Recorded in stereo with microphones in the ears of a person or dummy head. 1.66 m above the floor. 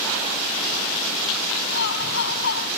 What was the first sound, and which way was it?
Laughter, 60° left (ahead or behind).